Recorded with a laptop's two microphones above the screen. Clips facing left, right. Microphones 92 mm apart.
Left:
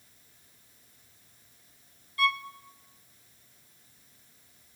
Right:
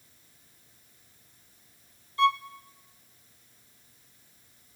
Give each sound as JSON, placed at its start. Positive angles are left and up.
{"t": 2.2, "sound": "a violin", "side_deg": -25, "distance_m": 0.8}